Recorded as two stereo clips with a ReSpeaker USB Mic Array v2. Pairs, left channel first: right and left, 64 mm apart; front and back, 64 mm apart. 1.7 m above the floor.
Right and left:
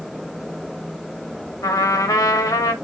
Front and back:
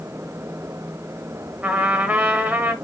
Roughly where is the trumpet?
Behind right.